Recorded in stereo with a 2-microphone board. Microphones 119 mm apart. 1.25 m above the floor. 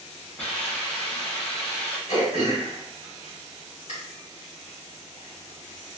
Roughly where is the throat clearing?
Left.